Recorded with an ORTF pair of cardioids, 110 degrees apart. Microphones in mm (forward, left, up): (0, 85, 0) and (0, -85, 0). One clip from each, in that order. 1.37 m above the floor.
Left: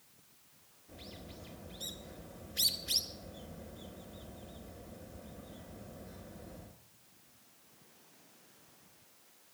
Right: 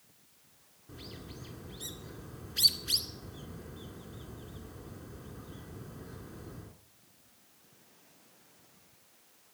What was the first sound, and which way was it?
A bird, 30° right.